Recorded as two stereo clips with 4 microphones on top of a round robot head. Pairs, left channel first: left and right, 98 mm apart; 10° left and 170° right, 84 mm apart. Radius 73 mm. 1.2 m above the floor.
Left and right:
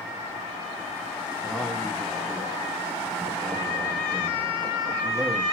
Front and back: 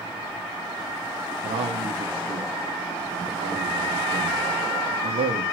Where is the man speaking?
175° right, 2.0 m.